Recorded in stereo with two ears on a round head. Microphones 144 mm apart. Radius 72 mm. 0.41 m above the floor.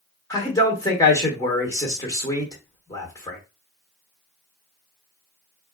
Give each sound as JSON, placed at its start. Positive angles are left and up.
{"t": 0.3, "sound": "a man speaking", "side_deg": 20, "distance_m": 0.9}